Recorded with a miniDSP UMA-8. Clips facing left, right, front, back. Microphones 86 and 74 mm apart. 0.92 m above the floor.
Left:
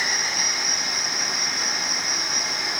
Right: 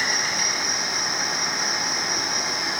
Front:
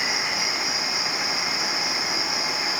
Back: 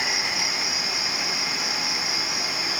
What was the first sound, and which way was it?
An insect, 160° left.